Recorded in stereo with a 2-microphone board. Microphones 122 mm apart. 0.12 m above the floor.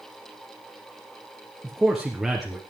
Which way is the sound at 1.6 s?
Centre (ahead or behind).